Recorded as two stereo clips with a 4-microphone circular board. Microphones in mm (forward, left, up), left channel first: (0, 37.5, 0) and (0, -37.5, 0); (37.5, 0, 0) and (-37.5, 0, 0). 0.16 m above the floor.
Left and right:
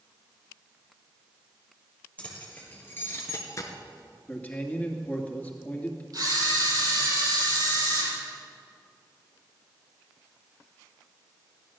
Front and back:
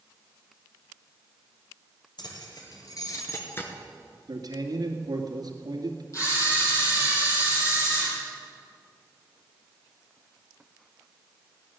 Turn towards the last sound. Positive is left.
turn(degrees=-50)